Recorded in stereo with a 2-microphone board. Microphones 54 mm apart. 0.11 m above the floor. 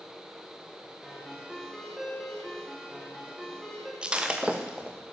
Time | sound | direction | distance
1.0 | a ringtone | centre (ahead or behind) | 8 m
4.0 | breaking glass | 20° right (ahead or behind) | 3.5 m